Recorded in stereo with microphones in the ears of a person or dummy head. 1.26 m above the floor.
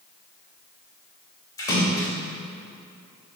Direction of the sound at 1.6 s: 20° left (ahead or behind).